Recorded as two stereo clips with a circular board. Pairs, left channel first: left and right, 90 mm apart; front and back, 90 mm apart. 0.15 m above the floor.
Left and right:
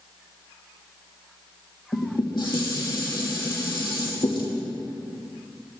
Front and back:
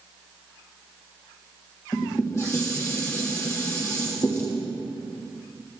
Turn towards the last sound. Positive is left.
turn(degrees=55)